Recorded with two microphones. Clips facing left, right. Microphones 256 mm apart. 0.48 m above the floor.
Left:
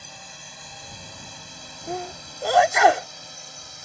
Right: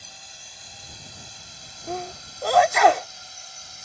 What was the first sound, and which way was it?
A drone, 65° left (ahead or behind).